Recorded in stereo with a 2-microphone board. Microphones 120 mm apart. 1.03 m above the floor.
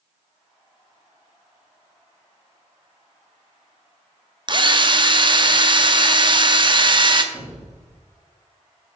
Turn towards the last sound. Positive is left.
turn(degrees=-20)  # may be behind; listen again after turning